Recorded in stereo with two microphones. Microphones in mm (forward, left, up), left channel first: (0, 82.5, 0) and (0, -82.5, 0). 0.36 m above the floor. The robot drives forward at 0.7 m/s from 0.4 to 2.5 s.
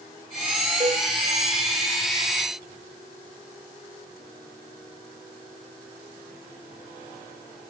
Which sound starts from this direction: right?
A cowbell, at 0.8 s.